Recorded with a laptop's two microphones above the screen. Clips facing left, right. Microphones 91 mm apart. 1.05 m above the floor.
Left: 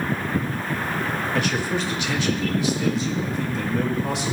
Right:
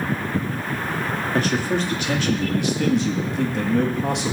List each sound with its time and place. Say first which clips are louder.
1.3 s a man speaking: right 4 dB; 40° right (ahead or behind), 2.5 m; by 4.3 s 60° right (ahead or behind), 1.8 m